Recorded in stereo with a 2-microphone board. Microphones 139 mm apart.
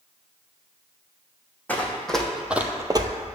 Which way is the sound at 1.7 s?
10° left (ahead or behind).